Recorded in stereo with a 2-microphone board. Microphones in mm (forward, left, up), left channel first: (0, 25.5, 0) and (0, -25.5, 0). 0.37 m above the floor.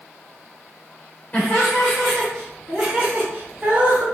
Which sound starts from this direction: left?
Laughter, at 1.3 s.